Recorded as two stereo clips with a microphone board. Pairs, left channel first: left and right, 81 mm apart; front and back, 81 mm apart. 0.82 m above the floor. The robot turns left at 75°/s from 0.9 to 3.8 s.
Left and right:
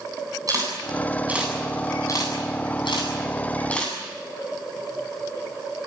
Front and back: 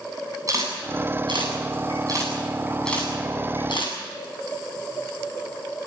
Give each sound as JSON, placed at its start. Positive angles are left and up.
{"t": 0.5, "sound": "a camera shutter", "azimuth_deg": -130, "distance_m": 8.0}